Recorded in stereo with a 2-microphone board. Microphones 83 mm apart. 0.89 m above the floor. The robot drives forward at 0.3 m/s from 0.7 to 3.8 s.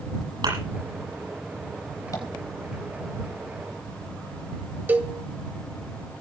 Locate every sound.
0.4 s a thud: 60° right (ahead or behind), 9.5 m
2.1 s tapping: 45° left (ahead or behind), 4 m; by 2.3 s 40° left (ahead or behind), 4 m
4.9 s a cowbell: 20° right (ahead or behind), 2 m